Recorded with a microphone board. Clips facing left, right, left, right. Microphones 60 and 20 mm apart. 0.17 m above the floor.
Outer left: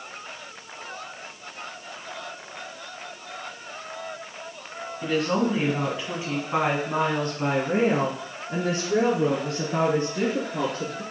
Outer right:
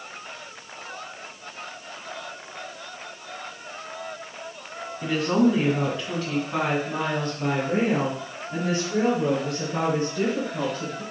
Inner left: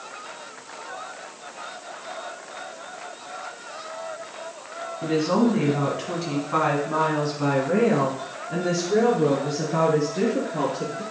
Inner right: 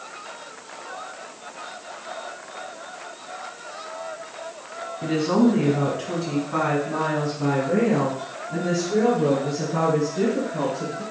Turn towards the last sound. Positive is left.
turn(degrees=65)  # may be behind; listen again after turning